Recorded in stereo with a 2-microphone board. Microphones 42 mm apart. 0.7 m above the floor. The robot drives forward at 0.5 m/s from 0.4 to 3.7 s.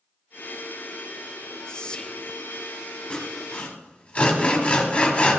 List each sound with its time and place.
1.7 s whispering: 20° left (ahead or behind), 0.8 m; by 2.3 s 25° left (ahead or behind), 0.7 m
3.1 s sawing: 25° left (ahead or behind), 2 m; by 5.4 s 30° left (ahead or behind), 2.0 m